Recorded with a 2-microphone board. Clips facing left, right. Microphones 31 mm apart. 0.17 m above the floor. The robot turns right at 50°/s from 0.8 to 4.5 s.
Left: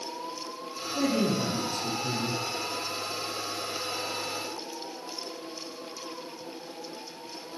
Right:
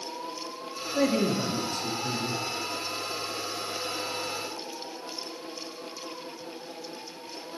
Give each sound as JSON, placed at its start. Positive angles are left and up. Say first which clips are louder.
{"t": 0.9, "sound": "a man speaking", "louder": "right 1 dB", "azimuth_deg": -60, "distance_m": 3.5}